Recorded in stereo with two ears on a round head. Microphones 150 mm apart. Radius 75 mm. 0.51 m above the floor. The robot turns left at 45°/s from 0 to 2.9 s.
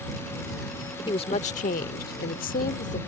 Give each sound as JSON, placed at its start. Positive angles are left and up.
{"t": 1.1, "sound": "a woman speaking", "azimuth_deg": 145}